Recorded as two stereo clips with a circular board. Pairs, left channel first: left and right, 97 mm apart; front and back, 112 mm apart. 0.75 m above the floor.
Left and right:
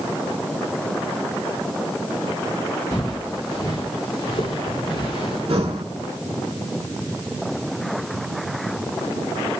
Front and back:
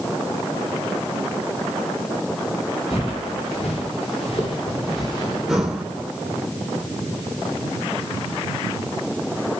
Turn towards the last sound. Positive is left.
turn(degrees=-95)